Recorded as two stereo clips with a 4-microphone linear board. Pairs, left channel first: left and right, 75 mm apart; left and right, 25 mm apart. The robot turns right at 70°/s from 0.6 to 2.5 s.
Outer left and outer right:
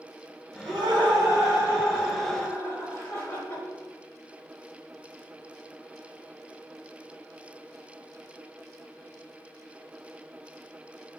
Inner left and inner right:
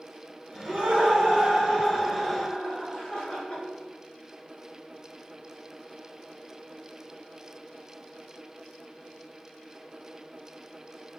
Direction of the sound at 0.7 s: 105° right.